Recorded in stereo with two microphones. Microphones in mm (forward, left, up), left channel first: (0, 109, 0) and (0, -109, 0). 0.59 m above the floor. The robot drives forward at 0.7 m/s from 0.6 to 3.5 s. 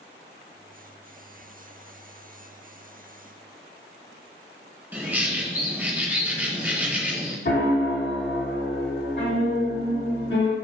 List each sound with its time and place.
4.9 s a bird: 10° right (ahead or behind), 0.5 m
7.5 s a piano: 55° left (ahead or behind), 0.8 m